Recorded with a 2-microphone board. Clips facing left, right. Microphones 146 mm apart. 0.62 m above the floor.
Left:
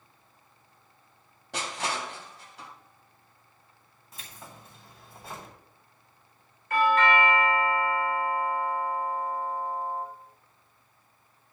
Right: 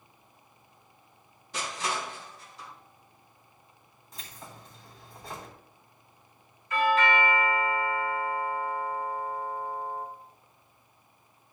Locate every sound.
1.5 s crushing: 80° left, 3 m
4.1 s keys jangling: 5° left (ahead or behind), 3 m
6.7 s a doorbell: 65° left (ahead or behind), 3 m